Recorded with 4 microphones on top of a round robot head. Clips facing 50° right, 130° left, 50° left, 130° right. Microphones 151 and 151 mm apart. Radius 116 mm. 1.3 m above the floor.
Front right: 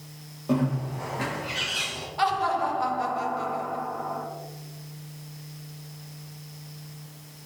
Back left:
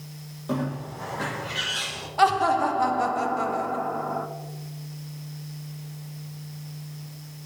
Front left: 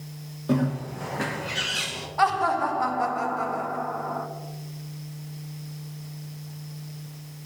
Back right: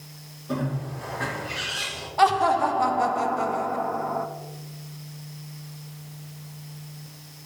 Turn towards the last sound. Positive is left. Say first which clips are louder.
# back left 4 dB, back right 3 dB
turn(degrees=165)